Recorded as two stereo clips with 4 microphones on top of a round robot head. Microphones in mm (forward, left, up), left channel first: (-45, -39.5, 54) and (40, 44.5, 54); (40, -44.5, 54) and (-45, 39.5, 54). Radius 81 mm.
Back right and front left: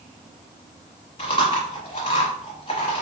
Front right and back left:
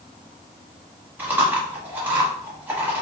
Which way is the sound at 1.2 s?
155° right.